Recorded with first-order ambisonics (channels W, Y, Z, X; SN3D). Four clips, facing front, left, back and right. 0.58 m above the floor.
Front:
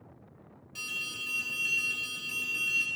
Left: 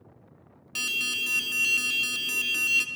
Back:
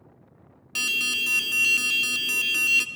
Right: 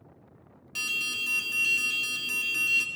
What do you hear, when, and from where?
0.8 s an alarm: 160° left, 0.7 m